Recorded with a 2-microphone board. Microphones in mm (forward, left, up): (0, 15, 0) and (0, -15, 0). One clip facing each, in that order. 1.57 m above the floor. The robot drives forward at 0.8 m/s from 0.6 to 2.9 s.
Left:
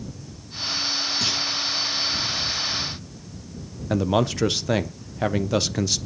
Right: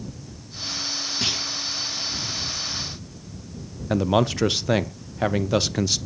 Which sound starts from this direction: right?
A clunk, at 1.2 s.